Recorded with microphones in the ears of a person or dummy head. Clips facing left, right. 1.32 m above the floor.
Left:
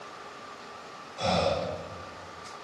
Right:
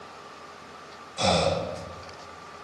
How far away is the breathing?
About 0.6 m.